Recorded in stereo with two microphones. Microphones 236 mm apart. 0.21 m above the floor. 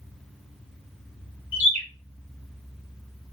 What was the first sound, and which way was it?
A bird, 5° left (ahead or behind).